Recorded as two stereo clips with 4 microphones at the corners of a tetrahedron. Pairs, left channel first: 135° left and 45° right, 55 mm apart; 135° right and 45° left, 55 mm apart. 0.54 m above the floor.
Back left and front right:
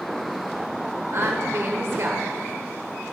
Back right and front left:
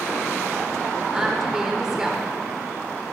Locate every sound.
1.1 s a woman speaking: 30° right, 1.8 m